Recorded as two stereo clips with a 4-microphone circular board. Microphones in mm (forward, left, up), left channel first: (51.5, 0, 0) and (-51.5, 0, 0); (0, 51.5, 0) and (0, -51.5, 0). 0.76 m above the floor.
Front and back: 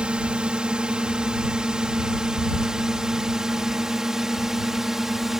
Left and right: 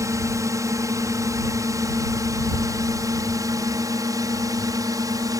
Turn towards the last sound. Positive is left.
turn(degrees=-95)